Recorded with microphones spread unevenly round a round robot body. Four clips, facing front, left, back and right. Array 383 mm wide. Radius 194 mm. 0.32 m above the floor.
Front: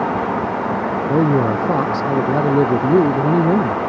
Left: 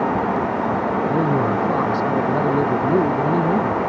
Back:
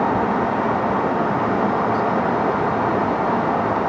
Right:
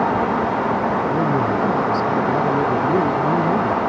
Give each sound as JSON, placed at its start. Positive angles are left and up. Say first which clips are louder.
{"t": 1.1, "sound": "a man speaking", "louder": "even, front 4 dB", "azimuth_deg": 5}